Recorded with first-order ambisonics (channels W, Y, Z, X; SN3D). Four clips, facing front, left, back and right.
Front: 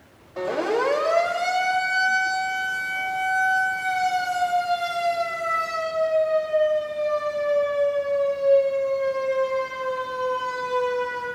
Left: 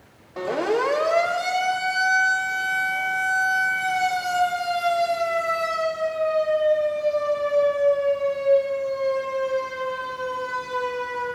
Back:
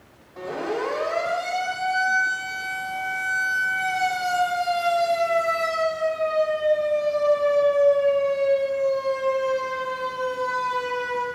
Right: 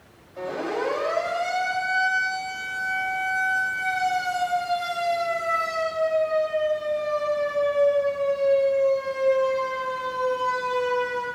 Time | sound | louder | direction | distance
0.4 | a siren | left 5 dB, front 4 dB | 70° left | 3.5 m